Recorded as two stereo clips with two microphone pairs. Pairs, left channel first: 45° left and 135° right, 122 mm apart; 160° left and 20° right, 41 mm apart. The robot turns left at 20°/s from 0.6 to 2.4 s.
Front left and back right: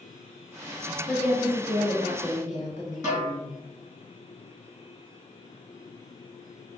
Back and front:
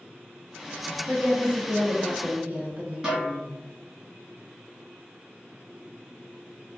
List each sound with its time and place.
1.1 s a woman speaking: 55° left, 0.9 m; by 3.5 s 25° left, 0.9 m
3.0 s a snare drum: 80° right, 1.8 m